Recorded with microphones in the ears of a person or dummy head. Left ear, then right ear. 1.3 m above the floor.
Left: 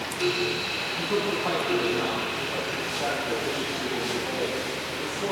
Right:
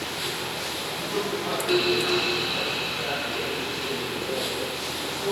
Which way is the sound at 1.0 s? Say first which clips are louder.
Left 2 dB; 25° left (ahead or behind).